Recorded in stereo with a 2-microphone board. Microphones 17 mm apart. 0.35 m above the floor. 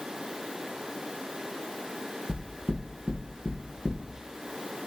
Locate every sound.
2.3 s knocking: 75° left (ahead or behind), 3 m